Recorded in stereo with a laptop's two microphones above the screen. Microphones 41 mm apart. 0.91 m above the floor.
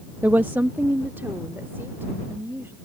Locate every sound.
0.2 s a woman speaking: 50° right (ahead or behind); by 2.8 s 75° right (ahead or behind)